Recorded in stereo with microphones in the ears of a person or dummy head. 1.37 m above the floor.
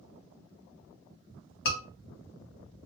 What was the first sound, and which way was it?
A scream, 65° left (ahead or behind).